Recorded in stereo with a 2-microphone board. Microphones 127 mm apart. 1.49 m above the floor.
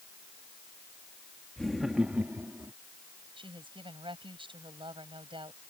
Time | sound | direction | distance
1.6 | laughter | 5° left (ahead or behind) | ?
3.4 | a woman speaking | 40° right (ahead or behind) | ?